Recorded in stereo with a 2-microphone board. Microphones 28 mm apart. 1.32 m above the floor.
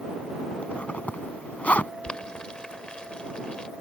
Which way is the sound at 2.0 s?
35° left (ahead or behind).